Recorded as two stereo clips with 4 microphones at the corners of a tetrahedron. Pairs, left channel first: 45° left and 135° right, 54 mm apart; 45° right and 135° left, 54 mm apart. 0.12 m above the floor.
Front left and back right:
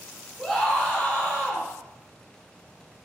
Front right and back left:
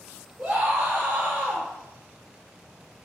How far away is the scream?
About 1.2 m.